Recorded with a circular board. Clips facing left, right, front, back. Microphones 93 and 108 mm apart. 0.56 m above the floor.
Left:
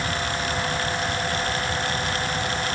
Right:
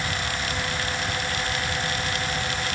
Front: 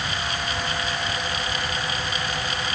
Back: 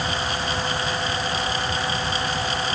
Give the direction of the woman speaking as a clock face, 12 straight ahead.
I don't hear a woman speaking.